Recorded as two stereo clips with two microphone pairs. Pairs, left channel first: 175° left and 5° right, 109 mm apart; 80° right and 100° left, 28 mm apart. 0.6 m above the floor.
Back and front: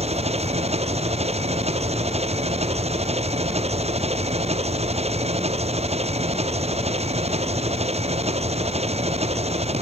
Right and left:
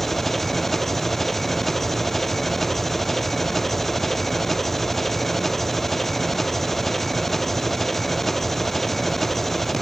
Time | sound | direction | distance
0.0 | an engine running | straight ahead | ?